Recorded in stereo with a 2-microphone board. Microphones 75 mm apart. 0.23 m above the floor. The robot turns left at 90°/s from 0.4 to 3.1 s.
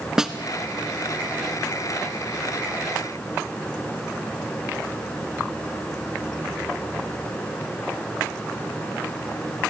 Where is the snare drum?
5° right (ahead or behind), 1.0 m.